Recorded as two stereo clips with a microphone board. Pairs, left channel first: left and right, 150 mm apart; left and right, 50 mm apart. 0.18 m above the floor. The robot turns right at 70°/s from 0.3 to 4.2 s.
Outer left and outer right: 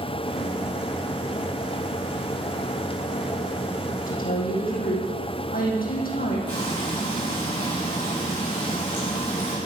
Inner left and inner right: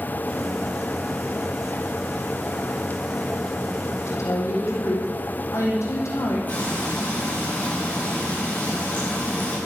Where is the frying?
30° left (ahead or behind), 9 m.